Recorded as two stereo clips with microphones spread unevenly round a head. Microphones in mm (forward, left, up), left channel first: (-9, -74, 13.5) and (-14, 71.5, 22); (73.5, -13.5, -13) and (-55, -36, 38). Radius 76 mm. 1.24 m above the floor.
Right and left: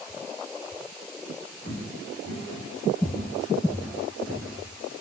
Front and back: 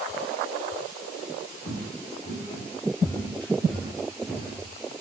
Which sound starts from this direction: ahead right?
Footsteps, at 1.6 s.